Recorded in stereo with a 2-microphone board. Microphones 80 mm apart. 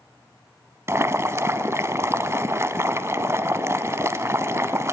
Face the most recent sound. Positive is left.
turn(degrees=-35)  # may be behind; listen again after turning